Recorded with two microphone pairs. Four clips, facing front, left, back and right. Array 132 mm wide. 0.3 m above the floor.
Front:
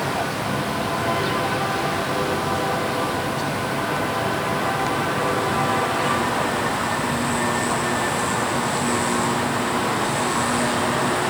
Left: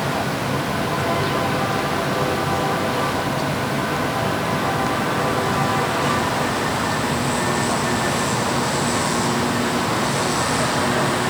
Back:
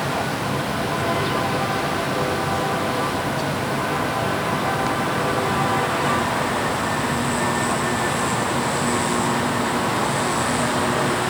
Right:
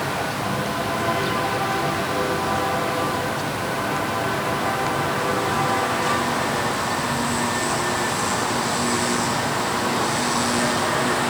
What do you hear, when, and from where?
Only background noise.